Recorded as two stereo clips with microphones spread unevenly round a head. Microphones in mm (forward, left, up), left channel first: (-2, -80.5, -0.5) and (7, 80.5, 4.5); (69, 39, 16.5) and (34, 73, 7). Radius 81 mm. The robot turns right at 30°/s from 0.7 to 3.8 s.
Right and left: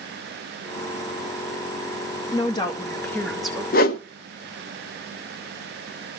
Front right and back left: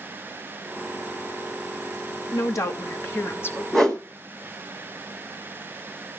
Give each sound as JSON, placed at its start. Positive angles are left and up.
{"t": 2.3, "sound": "a woman speaking", "azimuth_deg": -35, "distance_m": 2.0}
{"t": 3.7, "sound": "a whoosh", "azimuth_deg": -130, "distance_m": 0.8}